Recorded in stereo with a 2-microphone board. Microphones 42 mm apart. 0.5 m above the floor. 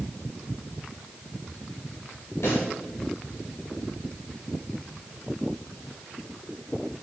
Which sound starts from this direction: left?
A pop, at 2.4 s.